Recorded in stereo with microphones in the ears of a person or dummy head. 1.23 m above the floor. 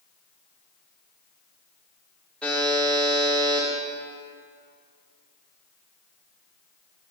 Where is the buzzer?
5° left (ahead or behind), 1.2 m.